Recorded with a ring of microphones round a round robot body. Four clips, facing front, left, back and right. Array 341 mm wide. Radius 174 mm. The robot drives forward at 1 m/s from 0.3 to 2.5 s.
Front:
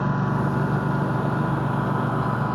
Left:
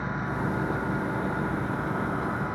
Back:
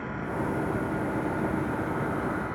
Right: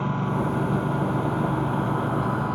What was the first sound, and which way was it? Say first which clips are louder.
A lawn mower: right 5 dB, front 7 dB; 25° right.